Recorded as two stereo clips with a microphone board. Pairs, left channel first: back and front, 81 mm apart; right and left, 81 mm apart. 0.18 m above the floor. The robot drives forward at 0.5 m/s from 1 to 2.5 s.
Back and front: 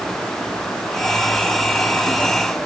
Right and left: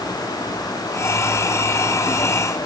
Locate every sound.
Only background noise.